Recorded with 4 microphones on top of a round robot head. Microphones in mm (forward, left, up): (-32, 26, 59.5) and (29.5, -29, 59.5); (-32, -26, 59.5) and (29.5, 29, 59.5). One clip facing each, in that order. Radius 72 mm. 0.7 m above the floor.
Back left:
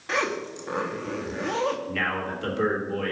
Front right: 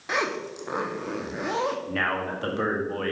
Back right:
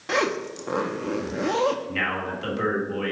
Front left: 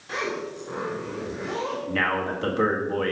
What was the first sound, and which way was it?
A zipper, 120° right.